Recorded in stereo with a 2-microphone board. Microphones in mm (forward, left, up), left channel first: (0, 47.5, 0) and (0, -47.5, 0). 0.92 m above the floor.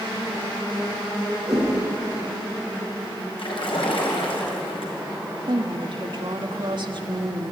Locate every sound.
1.5 s a whoosh: 15° right (ahead or behind), 9 m
3.4 s a splash: 70° left (ahead or behind), 4.5 m
5.5 s a woman speaking: 55° right (ahead or behind), 1.6 m